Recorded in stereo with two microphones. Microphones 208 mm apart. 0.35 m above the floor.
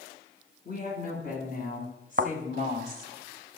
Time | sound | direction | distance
0.7 | a woman speaking | 50° left (ahead or behind) | 4.5 m
2.2 | a thud | 55° right (ahead or behind) | 0.7 m